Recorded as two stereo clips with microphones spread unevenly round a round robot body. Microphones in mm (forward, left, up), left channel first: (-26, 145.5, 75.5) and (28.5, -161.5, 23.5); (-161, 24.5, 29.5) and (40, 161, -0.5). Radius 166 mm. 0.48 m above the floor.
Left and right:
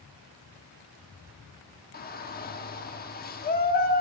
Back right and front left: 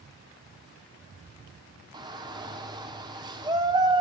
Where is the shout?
55° left, 1.1 m.